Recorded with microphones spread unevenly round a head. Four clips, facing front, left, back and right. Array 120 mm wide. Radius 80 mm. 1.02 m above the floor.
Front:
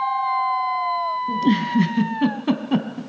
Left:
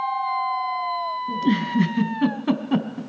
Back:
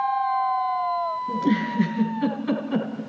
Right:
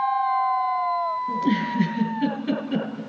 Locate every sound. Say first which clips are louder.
1.3 s a giggle: left 5 dB, front 5 dB; 60° left, 3.5 m